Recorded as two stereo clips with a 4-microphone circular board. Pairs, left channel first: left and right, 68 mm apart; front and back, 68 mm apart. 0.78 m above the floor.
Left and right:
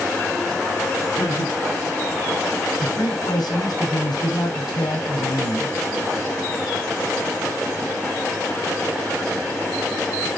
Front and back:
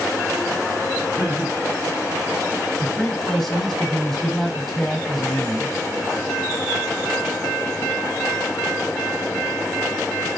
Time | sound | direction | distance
1.1 | laughter | 120° left | 4 m
2.8 | a man speaking | 90° left | 4 m